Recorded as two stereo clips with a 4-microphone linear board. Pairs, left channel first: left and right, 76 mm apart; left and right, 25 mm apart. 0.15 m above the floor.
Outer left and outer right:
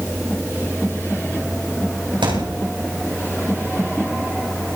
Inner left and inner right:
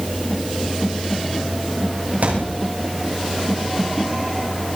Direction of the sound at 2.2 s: 75° right (ahead or behind).